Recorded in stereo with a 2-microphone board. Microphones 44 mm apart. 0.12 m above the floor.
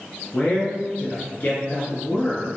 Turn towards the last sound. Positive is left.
turn(degrees=35)  # may be behind; listen again after turning